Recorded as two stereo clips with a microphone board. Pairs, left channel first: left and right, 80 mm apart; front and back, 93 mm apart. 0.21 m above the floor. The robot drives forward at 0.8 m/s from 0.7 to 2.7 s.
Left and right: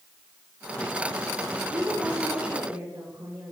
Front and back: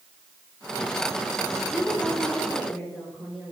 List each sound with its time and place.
1.7 s a woman speaking: 75° right, 3 m; by 3.5 s 90° right, 3 m